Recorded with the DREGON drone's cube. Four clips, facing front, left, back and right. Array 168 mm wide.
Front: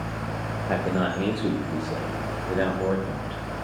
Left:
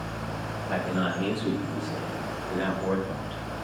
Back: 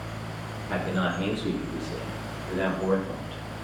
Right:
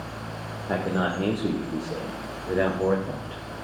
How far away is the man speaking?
About 4.5 m.